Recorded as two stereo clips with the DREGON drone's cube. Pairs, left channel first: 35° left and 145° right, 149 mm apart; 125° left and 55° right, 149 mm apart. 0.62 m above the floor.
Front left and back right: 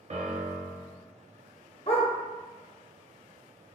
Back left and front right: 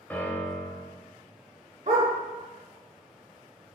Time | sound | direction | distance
0.1 | a piano | 160° right | 0.8 m
1.9 | a dog barking | 15° right | 0.9 m